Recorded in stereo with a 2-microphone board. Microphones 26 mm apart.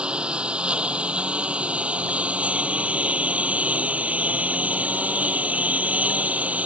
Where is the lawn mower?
45° right (ahead or behind); by 6.7 s 80° right.